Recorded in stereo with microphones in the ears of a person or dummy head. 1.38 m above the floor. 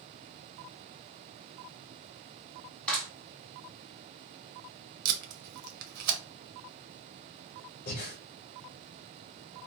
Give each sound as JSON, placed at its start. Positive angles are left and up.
{"t": 2.9, "sound": "a clap", "side_deg": 5, "distance_m": 1.7}
{"t": 5.0, "sound": "tape being pulled", "side_deg": -50, "distance_m": 0.7}
{"t": 7.9, "sound": "breathing", "side_deg": 50, "distance_m": 1.0}